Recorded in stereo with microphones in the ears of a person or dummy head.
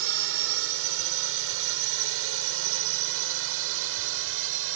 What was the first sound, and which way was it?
A drone, 70° right (ahead or behind).